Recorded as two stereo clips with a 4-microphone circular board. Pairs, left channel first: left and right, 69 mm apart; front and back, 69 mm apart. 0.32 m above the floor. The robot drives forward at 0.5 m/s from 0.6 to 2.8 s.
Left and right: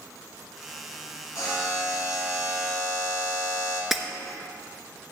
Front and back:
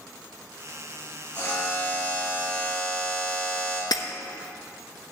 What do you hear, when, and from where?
1.4 s a buzzer: 50° left, 2.5 m; by 3.8 s 70° left, 2 m
3.9 s breaking glass: straight ahead, 0.9 m